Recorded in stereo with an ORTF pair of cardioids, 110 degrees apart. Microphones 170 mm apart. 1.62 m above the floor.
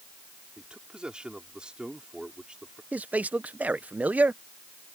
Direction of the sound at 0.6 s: 5° right.